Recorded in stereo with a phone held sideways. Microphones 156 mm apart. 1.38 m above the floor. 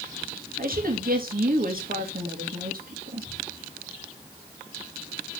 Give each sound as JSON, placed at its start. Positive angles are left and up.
{"t": 0.6, "sound": "a woman speaking", "side_deg": -70, "distance_m": 2.0}